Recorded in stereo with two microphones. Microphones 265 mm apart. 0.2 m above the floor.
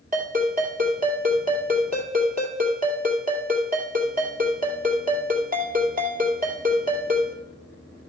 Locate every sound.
0.1 s a ringtone: 30° right (ahead or behind), 2.5 m